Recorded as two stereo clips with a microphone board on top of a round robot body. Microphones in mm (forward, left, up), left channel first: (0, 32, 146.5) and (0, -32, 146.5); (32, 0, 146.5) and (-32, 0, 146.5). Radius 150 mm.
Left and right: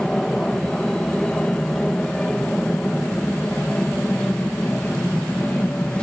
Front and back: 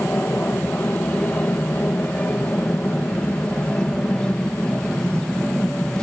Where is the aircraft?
20° left; by 6.0 s 55° left.